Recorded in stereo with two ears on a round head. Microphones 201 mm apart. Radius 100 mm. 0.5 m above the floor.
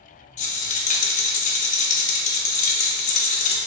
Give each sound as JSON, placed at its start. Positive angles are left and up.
{"t": 0.4, "sound": "a rattle", "side_deg": 35, "distance_m": 0.7}